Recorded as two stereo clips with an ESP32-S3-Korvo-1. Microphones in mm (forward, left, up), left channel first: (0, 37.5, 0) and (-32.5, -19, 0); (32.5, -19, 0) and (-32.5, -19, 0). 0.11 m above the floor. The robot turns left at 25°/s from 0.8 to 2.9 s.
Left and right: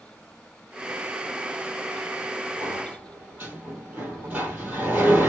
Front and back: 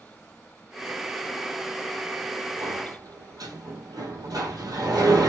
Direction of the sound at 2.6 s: Straight behind.